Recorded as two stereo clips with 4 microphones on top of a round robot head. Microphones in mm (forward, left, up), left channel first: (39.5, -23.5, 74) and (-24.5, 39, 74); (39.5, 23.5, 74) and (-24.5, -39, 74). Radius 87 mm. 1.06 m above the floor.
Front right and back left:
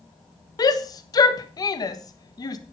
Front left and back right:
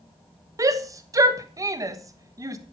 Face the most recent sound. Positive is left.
turn(degrees=-85)